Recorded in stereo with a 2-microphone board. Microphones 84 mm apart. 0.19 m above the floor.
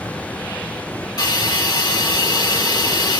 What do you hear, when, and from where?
1.2 s a hiss: 65° left (ahead or behind), 3 m